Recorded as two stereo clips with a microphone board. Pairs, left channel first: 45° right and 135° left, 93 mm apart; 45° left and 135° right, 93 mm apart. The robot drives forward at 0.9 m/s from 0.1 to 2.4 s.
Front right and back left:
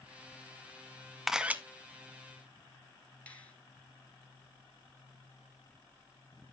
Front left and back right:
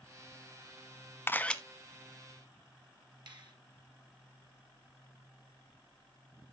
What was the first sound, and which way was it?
A camera shutter, 50° left.